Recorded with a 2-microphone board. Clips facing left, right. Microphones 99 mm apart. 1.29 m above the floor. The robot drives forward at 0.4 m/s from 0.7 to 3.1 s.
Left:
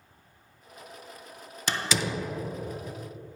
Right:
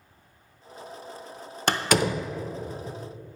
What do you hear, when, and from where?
1.7 s a door slam: 65° right (ahead or behind), 0.5 m; by 2.3 s 55° right (ahead or behind), 0.6 m